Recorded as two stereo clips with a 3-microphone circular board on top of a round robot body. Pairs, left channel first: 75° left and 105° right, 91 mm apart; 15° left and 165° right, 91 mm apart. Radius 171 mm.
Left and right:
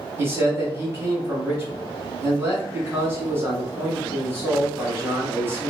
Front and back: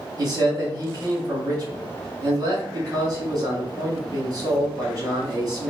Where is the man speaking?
150° right, 1.7 m.